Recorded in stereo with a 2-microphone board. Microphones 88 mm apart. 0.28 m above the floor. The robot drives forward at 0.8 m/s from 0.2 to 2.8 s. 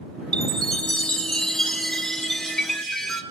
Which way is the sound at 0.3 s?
15° left (ahead or behind).